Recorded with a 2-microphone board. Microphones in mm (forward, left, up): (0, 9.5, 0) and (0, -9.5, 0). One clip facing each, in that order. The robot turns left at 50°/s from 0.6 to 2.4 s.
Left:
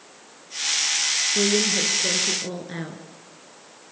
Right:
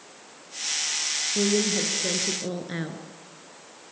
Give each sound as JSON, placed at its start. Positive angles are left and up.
{"t": 1.4, "sound": "a woman speaking", "azimuth_deg": 35, "distance_m": 2.0}